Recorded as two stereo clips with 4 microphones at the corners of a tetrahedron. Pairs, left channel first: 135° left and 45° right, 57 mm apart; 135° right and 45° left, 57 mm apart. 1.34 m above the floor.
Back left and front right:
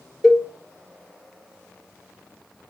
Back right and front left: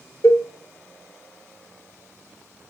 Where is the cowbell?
140° right, 1.3 m.